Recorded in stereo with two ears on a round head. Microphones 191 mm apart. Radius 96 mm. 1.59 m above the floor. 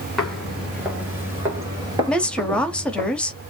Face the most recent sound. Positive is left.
turn(degrees=5)  # may be behind; listen again after turning